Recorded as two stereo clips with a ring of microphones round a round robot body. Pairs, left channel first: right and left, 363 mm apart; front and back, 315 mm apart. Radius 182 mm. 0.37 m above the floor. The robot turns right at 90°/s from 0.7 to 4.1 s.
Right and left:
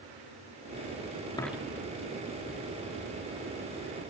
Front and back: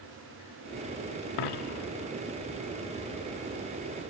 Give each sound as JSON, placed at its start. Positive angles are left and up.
{"t": 1.4, "sound": "a dropped coin", "azimuth_deg": -10, "distance_m": 1.0}